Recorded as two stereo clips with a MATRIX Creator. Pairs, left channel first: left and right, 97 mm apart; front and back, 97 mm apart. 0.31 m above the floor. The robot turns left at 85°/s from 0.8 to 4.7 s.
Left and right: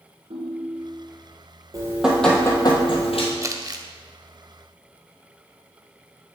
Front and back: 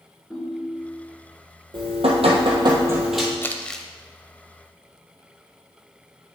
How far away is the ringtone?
About 1.9 m.